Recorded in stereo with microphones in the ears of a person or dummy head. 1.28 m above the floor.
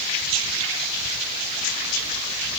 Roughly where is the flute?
No flute in this recording.